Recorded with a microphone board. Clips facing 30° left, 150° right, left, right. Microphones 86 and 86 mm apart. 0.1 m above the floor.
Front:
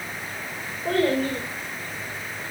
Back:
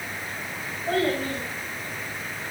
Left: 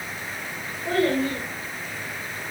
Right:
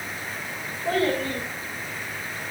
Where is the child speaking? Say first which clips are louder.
Front 3 dB, left 2 dB; 5° left, 4.5 m.